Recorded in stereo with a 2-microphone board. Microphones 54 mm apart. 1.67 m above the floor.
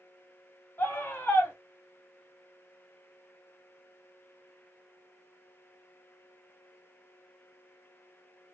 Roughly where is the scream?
Left.